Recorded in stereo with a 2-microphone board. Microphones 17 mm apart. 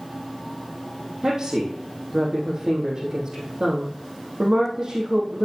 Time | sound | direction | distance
1.2 | a woman speaking | 45° right (ahead or behind) | 3.5 m